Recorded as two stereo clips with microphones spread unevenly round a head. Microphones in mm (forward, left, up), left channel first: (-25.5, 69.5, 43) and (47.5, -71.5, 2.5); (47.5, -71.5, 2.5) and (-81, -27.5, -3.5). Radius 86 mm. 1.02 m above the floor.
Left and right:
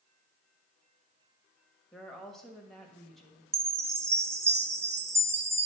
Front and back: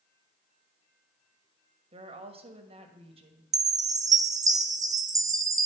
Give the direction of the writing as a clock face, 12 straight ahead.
I don't hear writing.